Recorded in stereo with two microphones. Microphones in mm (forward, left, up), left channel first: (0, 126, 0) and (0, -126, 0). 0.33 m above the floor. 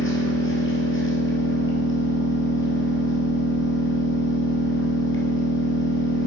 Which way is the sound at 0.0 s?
55° left (ahead or behind).